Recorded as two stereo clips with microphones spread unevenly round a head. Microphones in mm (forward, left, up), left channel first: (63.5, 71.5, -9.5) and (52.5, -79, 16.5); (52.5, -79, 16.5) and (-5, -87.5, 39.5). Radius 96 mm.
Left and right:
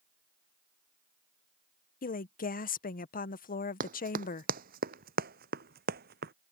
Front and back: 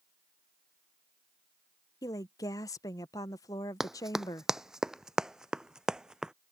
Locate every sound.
2.0 s a woman speaking: 55° left
3.8 s running footsteps: 105° right